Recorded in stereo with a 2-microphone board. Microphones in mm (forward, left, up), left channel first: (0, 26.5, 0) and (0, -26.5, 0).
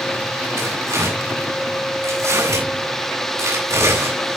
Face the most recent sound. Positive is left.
turn(degrees=-75)  # may be behind; listen again after turning